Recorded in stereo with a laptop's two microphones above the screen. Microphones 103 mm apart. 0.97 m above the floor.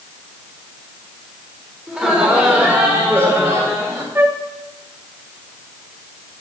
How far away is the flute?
About 0.7 m.